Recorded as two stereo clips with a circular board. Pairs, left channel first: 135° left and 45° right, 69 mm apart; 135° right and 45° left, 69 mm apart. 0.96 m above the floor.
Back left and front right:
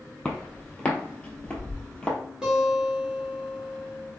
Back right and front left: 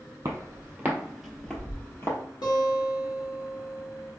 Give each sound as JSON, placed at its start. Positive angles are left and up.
{"t": 0.2, "sound": "footsteps", "azimuth_deg": 65, "distance_m": 1.4}
{"t": 2.4, "sound": "a guitar", "azimuth_deg": -125, "distance_m": 1.4}